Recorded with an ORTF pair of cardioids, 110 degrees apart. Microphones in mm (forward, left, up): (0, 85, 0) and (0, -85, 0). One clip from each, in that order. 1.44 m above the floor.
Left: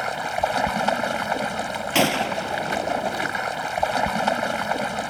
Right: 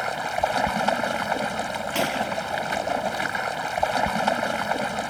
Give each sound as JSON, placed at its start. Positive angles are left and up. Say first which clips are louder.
{"t": 0.0, "sound": "running water", "louder": "left 1 dB", "azimuth_deg": 5}
{"t": 1.9, "sound": "a gunshot", "louder": "left 5 dB", "azimuth_deg": 50}